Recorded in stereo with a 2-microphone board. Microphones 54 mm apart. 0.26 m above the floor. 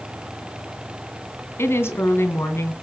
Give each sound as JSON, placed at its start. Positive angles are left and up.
{"t": 1.6, "sound": "a woman speaking", "side_deg": 50, "distance_m": 2.5}